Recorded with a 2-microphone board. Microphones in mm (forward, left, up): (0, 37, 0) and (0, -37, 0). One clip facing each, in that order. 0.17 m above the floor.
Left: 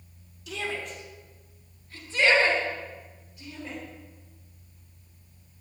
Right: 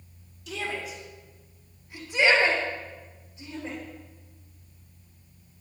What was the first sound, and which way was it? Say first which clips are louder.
A shout: even; centre (ahead or behind).